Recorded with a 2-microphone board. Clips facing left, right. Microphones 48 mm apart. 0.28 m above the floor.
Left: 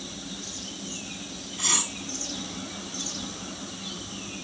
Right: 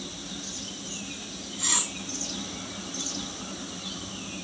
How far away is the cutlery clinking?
About 4.5 m.